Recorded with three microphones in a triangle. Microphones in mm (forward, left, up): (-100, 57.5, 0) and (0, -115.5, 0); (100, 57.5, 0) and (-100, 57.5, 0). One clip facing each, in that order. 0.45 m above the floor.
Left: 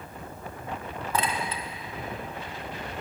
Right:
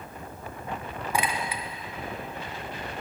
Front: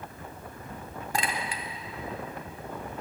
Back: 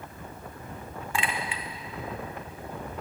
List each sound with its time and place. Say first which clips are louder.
1.1 s a clink: even, even; 10° left, 0.5 m